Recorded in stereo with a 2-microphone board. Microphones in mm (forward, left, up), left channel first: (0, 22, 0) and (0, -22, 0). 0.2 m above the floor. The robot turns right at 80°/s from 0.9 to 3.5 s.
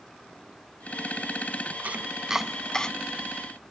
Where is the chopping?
40° right (ahead or behind); by 2.9 s 20° left (ahead or behind).